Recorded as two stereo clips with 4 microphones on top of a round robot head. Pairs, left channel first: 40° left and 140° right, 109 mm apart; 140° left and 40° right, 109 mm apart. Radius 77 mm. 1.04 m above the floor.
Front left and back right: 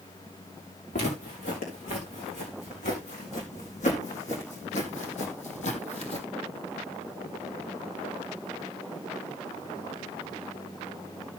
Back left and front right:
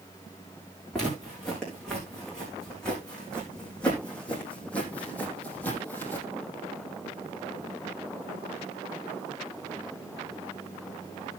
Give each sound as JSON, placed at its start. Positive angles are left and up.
{"t": 0.9, "sound": "footsteps", "azimuth_deg": 55, "distance_m": 6.0}